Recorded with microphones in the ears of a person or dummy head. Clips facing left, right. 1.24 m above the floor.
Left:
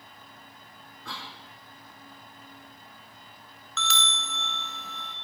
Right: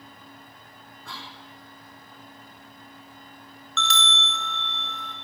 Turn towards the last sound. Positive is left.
turn(degrees=0)  # may be behind; listen again after turning